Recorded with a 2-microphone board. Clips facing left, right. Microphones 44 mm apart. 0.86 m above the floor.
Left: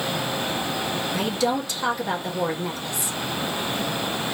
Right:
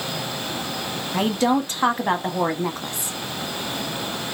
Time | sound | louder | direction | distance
1.1 | a woman speaking | right 5 dB | 45° right (ahead or behind) | 1.1 m